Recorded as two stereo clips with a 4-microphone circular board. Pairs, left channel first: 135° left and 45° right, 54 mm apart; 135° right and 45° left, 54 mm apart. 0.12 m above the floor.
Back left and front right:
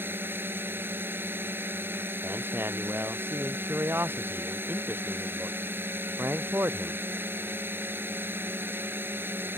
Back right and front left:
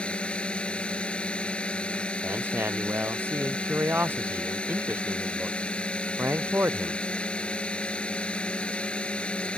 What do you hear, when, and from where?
0.0 s a drone: 70° right
2.2 s a man speaking: straight ahead